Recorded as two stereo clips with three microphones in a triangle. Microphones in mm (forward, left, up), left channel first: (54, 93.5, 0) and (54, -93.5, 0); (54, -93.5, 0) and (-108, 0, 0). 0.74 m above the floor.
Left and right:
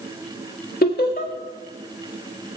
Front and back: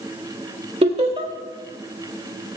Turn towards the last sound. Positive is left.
turn(degrees=100)